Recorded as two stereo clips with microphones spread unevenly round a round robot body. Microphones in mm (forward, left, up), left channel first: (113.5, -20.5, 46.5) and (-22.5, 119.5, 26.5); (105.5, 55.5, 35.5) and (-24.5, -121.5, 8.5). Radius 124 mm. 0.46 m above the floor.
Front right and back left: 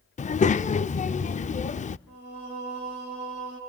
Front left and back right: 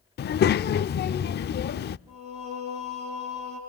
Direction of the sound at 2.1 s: 65° right.